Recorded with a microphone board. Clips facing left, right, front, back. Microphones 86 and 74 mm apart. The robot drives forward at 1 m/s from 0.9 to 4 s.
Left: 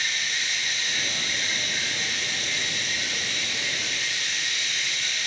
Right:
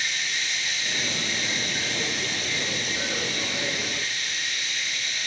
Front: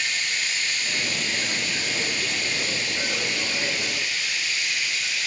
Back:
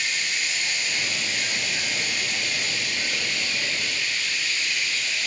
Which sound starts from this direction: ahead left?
Running water, at 0.0 s.